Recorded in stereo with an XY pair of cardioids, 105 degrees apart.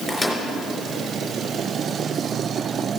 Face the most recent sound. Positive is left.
turn(degrees=10)